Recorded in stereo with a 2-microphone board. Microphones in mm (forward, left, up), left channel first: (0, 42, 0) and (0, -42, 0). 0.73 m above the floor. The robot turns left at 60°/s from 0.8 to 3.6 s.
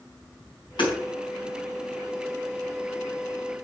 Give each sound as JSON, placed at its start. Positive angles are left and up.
{"t": 0.8, "sound": "hammering", "side_deg": 70, "distance_m": 5.0}